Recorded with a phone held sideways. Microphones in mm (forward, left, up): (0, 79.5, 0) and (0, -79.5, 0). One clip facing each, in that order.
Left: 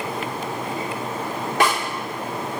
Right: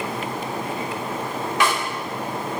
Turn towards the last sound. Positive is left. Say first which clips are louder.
# left 2 dB
turn(degrees=55)  # may be behind; listen again after turning